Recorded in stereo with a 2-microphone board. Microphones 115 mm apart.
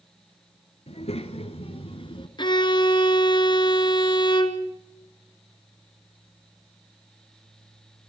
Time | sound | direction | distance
0.9 | a child speaking | 60° left (ahead or behind) | 2.5 m
2.4 | a violin | 40° left (ahead or behind) | 1.4 m